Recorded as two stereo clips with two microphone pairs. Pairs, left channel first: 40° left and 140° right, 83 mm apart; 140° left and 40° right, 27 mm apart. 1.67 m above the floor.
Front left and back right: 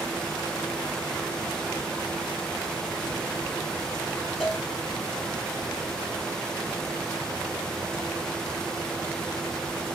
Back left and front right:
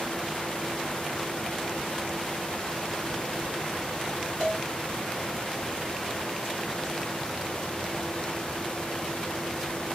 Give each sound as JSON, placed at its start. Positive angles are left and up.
{"t": 4.4, "sound": "a cowbell", "azimuth_deg": 135, "distance_m": 2.5}